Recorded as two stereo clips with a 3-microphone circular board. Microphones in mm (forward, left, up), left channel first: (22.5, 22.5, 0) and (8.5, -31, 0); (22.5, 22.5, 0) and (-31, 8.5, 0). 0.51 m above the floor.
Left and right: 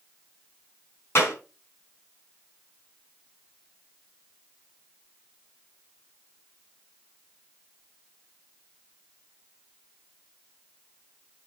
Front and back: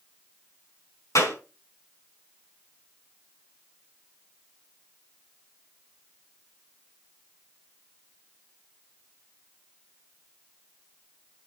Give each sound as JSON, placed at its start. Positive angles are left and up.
{"t": 1.1, "sound": "a clap", "azimuth_deg": 35, "distance_m": 5.5}